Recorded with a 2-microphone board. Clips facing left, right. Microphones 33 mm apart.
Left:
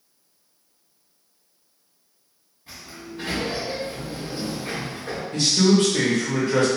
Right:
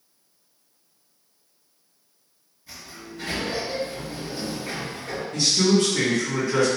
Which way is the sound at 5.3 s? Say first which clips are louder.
Left 2 dB; 65° left (ahead or behind).